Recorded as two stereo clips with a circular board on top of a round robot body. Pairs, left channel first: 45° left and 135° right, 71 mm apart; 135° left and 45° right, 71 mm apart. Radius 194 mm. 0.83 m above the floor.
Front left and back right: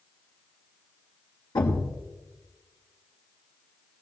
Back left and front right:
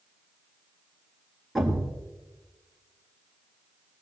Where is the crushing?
No crushing in this recording.